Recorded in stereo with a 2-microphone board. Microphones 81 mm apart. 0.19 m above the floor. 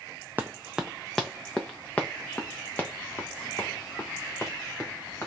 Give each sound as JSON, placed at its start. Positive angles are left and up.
{"t": 0.4, "sound": "running footsteps", "side_deg": -20, "distance_m": 0.7}